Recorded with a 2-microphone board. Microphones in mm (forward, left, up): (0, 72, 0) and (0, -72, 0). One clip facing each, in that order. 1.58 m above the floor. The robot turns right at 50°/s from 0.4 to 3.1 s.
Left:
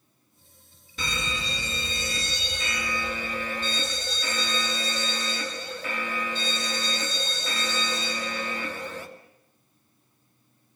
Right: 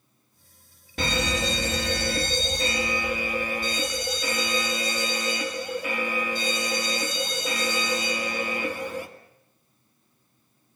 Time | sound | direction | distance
1.0 | an alarm | 120° right | 2 m